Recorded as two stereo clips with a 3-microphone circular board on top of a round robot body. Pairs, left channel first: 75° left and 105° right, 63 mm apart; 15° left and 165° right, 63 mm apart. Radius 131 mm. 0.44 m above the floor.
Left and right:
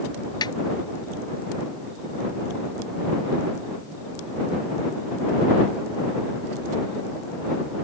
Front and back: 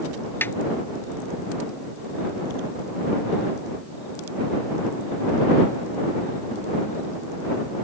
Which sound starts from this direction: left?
A snare drum, at 0.4 s.